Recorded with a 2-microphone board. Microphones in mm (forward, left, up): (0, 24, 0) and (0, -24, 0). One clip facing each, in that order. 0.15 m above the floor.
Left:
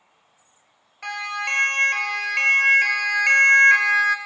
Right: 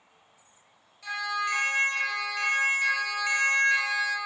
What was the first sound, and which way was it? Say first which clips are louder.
A siren: left 2 dB; 60° left (ahead or behind).